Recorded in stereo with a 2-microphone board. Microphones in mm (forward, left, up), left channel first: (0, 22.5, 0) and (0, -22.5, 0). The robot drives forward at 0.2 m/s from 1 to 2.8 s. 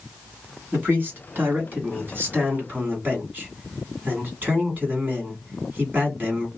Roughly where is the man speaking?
Right.